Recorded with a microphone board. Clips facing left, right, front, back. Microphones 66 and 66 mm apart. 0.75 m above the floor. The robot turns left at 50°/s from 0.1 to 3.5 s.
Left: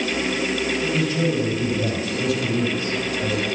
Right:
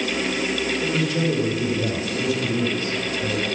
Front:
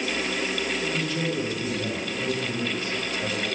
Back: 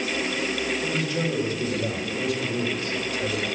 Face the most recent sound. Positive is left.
turn(degrees=125)